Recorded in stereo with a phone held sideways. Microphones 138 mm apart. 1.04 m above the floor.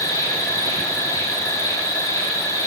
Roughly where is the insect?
Left.